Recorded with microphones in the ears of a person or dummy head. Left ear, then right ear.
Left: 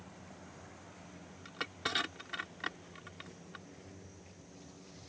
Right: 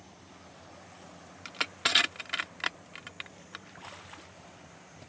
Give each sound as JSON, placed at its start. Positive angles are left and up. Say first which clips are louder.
{"t": 1.4, "sound": "crushing", "louder": "right 8 dB", "side_deg": -45}